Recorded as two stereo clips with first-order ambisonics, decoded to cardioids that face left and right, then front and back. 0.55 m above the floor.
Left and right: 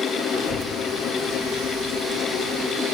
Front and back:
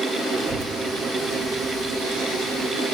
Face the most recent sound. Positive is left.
turn(degrees=140)